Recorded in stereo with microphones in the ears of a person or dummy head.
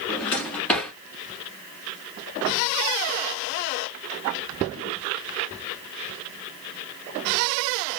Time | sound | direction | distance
0.1 | a drawer | 10° left (ahead or behind) | 1.0 m